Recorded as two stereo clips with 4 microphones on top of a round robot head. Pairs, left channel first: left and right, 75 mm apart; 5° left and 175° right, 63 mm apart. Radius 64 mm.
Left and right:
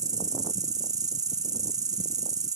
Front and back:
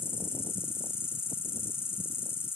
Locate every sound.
0.0 s an insect: 50° right, 1.1 m